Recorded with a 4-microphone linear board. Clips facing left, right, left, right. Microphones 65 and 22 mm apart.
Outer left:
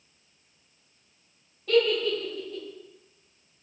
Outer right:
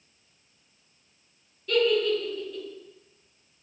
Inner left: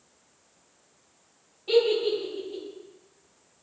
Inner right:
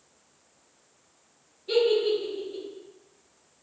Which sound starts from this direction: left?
A giggle, at 1.7 s.